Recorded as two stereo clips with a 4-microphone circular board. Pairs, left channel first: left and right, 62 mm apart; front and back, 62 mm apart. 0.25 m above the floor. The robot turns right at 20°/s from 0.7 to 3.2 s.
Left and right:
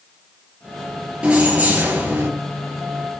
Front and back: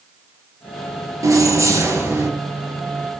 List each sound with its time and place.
1.2 s keys jangling: 160° right, 3 m; by 2.3 s 140° right, 3 m